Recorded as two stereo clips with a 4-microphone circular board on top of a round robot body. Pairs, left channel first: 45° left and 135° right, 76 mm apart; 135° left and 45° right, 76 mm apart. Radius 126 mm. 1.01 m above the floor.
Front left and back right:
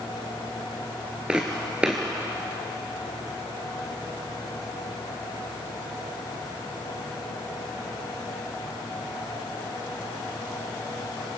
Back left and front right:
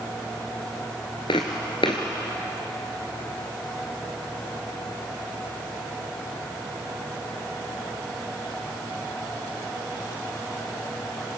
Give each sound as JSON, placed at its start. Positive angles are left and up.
{"t": 1.3, "sound": "footsteps", "azimuth_deg": 150, "distance_m": 1.0}